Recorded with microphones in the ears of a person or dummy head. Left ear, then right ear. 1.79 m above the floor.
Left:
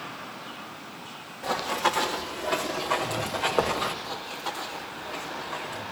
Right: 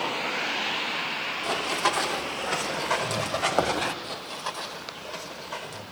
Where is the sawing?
I don't hear sawing.